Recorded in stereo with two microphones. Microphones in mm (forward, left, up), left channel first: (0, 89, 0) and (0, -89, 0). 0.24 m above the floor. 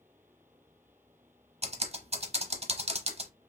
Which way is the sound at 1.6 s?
35° right (ahead or behind).